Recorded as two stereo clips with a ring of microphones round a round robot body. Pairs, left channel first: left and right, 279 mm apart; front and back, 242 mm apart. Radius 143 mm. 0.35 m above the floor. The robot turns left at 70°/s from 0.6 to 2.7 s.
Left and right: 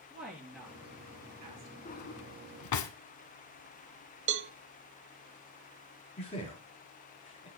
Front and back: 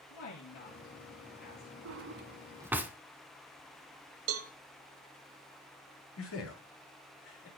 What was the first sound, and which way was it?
A woman speaking, straight ahead.